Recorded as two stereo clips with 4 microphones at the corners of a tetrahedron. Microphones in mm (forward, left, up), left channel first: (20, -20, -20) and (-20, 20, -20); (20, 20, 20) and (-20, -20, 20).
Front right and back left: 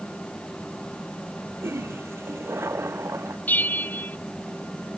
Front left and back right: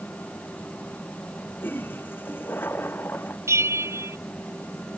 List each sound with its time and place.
1.6 s a toilet flushing: 95° left
3.5 s a bell: 100° right